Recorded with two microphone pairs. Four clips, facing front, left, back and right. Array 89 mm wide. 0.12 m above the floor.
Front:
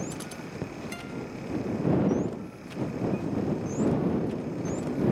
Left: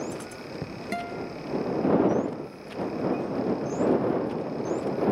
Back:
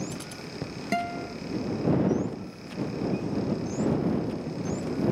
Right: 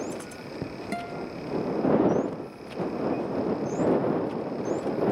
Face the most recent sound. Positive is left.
turn(degrees=175)